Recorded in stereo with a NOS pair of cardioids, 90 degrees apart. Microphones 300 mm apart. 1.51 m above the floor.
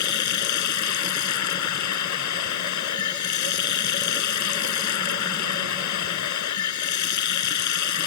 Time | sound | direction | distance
0.0 | running water | 70° left | ?